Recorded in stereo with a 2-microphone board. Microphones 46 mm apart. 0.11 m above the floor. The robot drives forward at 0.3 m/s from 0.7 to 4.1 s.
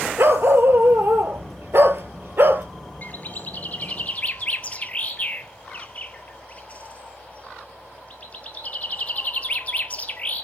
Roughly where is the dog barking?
Right.